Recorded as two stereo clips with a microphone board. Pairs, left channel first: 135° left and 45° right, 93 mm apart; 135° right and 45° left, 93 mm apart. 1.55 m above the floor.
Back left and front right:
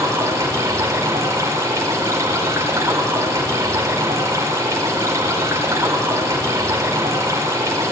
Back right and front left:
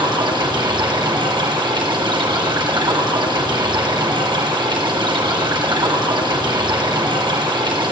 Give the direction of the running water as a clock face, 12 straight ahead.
12 o'clock.